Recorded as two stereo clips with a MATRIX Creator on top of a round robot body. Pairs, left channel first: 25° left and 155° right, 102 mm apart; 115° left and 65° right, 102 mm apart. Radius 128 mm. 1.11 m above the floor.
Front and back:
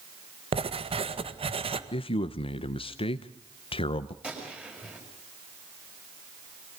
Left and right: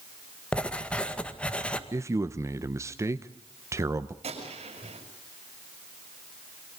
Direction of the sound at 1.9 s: 5° right.